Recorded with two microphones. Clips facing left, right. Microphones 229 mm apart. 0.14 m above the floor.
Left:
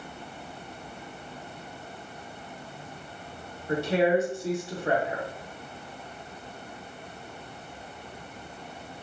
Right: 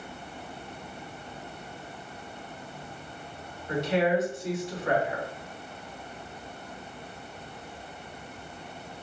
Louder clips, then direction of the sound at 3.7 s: Left 2 dB; 30° left (ahead or behind).